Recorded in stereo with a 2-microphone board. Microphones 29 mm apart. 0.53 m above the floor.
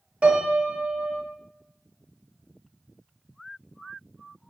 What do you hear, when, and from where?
0.2 s a piano: 40° right (ahead or behind), 0.5 m